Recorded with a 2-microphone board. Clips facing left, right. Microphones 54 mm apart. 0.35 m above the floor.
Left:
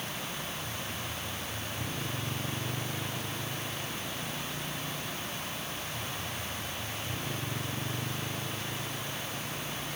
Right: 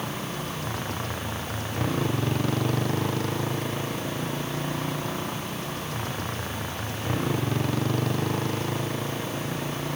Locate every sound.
0.0 s a motorcycle: 85° right; by 10.0 s 80° right